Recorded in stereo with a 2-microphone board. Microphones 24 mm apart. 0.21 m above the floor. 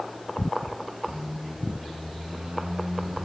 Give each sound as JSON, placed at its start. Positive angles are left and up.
{"t": 1.1, "sound": "a squeak", "side_deg": -45, "distance_m": 1.4}